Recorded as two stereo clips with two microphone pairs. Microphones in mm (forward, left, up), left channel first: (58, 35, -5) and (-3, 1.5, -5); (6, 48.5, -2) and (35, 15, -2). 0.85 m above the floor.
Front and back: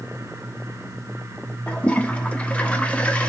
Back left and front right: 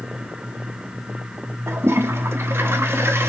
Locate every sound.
1.7 s a toilet flushing: 40° right, 0.7 m